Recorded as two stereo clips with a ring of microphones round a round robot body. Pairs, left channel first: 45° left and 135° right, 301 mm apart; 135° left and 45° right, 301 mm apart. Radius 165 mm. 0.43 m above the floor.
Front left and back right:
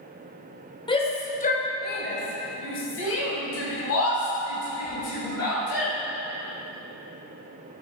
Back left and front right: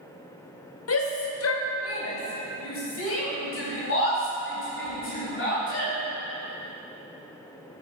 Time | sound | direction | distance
0.9 | a shout | 115° left | 1.9 m